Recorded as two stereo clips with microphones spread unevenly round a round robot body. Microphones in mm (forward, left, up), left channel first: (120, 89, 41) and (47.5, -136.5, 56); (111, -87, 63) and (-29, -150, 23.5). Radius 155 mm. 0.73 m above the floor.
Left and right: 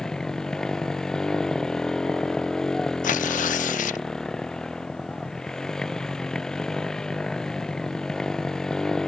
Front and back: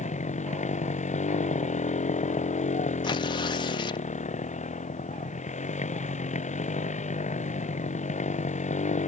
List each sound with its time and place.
0.0 s a motorcycle: 15° right
3.0 s tearing paper: 90° left